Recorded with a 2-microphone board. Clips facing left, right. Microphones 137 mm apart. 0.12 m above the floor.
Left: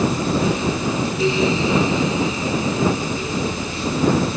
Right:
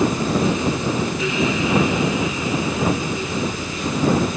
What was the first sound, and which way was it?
Only background noise.